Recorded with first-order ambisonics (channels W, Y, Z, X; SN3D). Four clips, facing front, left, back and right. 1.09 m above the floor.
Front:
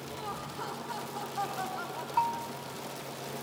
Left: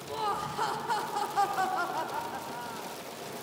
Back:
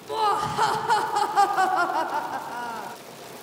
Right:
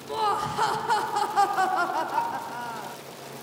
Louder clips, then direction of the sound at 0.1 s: Right 7 dB, back 18 dB; 160° right.